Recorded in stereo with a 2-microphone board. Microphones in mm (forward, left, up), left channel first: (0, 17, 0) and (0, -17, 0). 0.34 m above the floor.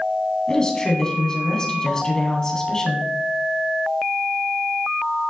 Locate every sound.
0.5 s a woman speaking: 25° left (ahead or behind), 2.5 m